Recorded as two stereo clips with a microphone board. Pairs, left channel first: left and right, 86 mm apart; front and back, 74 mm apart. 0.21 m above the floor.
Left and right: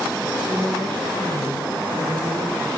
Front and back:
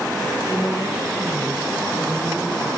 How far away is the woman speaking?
About 7 m.